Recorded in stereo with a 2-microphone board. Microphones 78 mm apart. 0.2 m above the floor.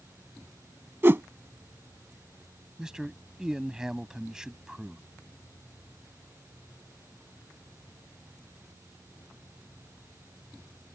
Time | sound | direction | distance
1.0 | a whoosh | 30° right (ahead or behind) | ?
2.8 | a man speaking | 10° right (ahead or behind) | ?